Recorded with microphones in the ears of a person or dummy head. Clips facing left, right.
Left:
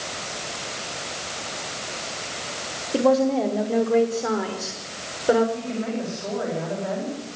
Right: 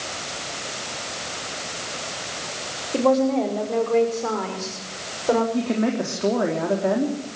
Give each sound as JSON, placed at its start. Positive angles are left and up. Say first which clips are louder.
{"t": 2.9, "sound": "a woman speaking", "louder": "even", "side_deg": 10, "distance_m": 4.5}
{"t": 5.5, "sound": "a woman speaking", "louder": "right 6 dB", "side_deg": -60, "distance_m": 4.0}